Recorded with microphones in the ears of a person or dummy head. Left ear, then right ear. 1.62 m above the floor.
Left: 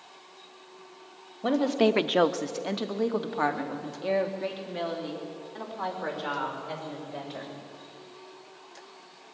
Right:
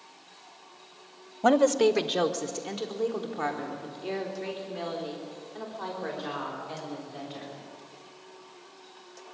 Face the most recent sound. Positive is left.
turn(degrees=70)  # may be behind; listen again after turning